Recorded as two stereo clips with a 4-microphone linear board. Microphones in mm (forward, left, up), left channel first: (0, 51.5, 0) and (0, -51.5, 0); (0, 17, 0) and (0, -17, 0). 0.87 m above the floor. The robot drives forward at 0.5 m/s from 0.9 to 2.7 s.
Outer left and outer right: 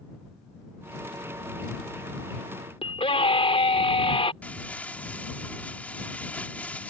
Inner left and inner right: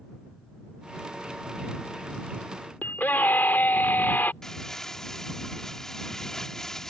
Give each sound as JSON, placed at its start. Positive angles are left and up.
{"t": 2.8, "sound": "a scream", "side_deg": 70}
{"t": 4.4, "sound": "crumpling", "side_deg": 15}